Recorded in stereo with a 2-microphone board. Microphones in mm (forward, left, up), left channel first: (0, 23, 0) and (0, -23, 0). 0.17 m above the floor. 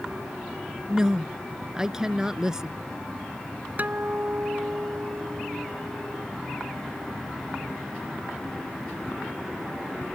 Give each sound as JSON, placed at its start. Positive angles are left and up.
{"t": 0.9, "sound": "a woman speaking", "side_deg": -15}
{"t": 3.8, "sound": "a guitar", "side_deg": -40}